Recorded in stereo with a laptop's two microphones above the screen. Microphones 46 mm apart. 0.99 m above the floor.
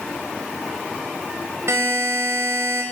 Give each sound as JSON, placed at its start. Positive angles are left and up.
{"t": 1.7, "sound": "a buzzer", "side_deg": -80, "distance_m": 5.0}